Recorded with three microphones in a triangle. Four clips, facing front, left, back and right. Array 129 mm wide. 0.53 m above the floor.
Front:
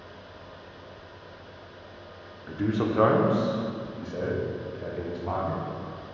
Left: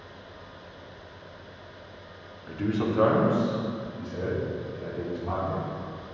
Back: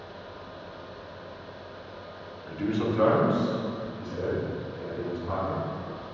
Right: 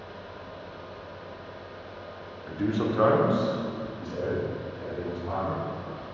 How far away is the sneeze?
I don't hear a sneeze.